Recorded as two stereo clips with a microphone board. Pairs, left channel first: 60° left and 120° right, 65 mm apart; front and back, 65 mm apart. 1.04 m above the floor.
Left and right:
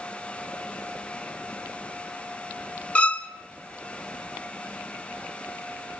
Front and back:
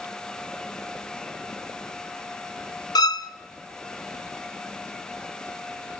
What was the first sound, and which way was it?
A violin, 10° right.